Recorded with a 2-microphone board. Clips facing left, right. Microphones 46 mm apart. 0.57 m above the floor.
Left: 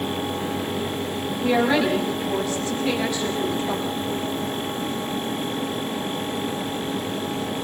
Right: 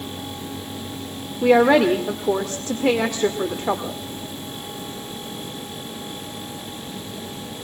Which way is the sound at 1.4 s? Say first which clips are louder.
Right 6 dB; 55° right (ahead or behind).